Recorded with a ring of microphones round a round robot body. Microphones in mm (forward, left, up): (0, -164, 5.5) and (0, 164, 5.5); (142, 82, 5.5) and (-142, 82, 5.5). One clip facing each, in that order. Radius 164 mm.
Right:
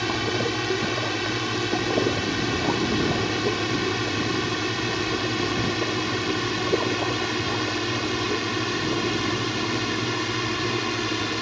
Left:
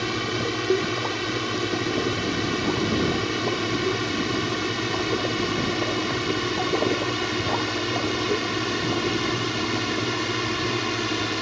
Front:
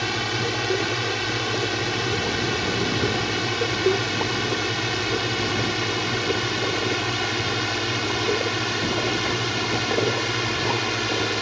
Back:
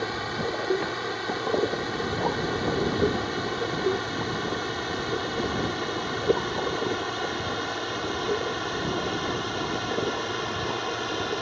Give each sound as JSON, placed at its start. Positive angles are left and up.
{"t": 0.0, "sound": "a drone", "azimuth_deg": -10}